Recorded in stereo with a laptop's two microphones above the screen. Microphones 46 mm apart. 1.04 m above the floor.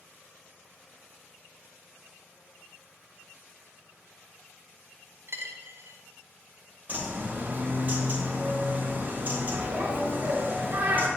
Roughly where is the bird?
Right.